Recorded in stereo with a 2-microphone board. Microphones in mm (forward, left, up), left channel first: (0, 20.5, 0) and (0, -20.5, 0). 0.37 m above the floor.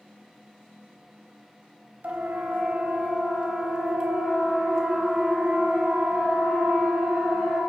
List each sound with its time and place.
2.0 s a siren: 50° right (ahead or behind), 2 m; by 7.6 s 5° right (ahead or behind), 4.5 m